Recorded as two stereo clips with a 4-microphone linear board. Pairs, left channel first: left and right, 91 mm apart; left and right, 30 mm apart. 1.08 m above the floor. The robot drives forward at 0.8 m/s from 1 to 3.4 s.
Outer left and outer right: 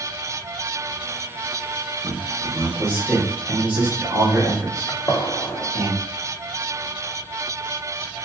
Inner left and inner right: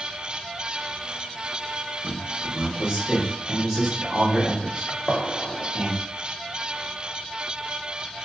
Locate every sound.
2.0 s a man speaking: 40° right (ahead or behind), 0.8 m; by 5.9 s 15° right (ahead or behind), 1.8 m
4.9 s a gunshot: 35° left (ahead or behind), 0.5 m